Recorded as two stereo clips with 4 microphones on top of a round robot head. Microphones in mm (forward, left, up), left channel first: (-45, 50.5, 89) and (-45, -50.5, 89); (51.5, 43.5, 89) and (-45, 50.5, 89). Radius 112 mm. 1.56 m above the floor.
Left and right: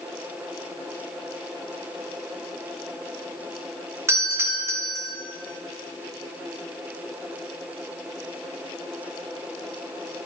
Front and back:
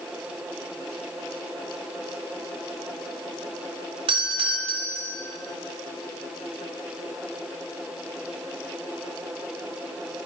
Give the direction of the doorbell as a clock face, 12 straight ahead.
5 o'clock.